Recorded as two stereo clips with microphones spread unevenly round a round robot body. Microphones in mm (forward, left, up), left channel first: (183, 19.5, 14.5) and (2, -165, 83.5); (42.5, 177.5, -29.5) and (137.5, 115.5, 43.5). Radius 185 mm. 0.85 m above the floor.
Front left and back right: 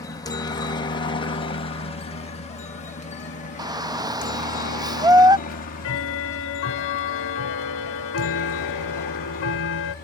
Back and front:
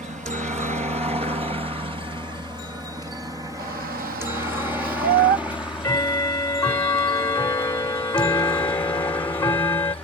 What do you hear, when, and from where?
0.0 s a helicopter: straight ahead; by 10.1 s 95° left
3.6 s a shout: 50° right
5.5 s ticking: 85° left